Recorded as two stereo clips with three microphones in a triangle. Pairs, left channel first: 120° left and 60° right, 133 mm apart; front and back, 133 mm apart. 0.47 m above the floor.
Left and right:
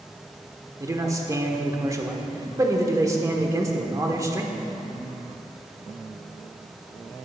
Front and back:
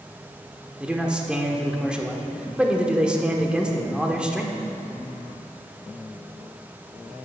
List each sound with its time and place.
0.8 s a man speaking: 105° right, 1.2 m